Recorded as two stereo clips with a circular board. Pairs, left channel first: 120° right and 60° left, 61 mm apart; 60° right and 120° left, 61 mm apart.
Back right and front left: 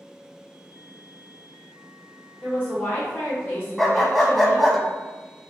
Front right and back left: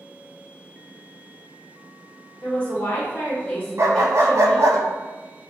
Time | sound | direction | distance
2.4 | a woman speaking | 100° right | 1.5 m
3.8 | a dog barking | 150° left | 0.5 m